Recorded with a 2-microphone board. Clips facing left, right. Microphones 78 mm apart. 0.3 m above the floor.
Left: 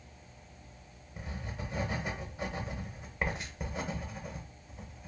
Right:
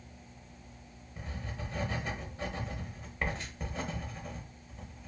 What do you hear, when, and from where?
1.2 s writing: 15° left (ahead or behind), 0.6 m